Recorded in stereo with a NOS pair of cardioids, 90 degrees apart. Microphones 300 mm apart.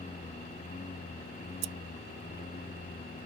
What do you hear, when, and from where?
0.0 s a lawn mower: 25° left; by 3.3 s 30° left
1.6 s scissors: 70° right